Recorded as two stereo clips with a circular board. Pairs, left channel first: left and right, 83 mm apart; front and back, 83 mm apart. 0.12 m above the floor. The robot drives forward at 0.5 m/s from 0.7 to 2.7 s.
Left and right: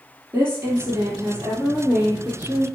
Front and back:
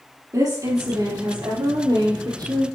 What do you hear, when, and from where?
0.3 s a woman speaking: 150° right, 3 m; by 2.7 s 155° right, 4 m